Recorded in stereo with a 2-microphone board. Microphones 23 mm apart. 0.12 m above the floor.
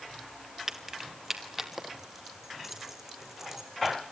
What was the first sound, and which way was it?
Keys jangling, 15° right (ahead or behind).